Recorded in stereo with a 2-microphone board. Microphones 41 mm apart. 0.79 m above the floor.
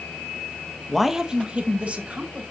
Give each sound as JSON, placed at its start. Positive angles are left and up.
{"t": 0.9, "sound": "a man speaking", "side_deg": 5, "distance_m": 0.7}